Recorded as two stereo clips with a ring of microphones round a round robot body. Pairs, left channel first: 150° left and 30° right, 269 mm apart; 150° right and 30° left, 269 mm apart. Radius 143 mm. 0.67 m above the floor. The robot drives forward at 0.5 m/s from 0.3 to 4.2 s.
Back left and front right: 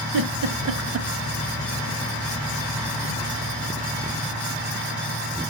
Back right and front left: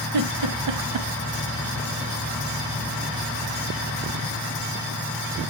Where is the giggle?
5° left, 1.2 m; by 1.1 s 10° left, 0.9 m.